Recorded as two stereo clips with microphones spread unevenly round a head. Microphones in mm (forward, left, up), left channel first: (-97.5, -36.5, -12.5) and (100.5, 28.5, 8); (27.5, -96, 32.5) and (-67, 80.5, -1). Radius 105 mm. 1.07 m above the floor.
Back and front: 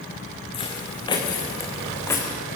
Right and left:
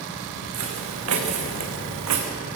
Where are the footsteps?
130° left, 4.5 m; by 2.3 s 115° left, 4 m.